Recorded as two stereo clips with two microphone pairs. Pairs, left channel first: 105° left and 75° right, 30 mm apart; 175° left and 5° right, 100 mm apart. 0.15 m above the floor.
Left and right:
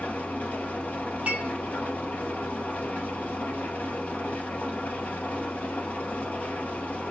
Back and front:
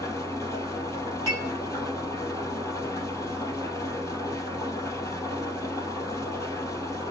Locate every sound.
0.0 s an engine running: 120° left, 2.5 m
1.3 s dishes clattering: 125° right, 3.5 m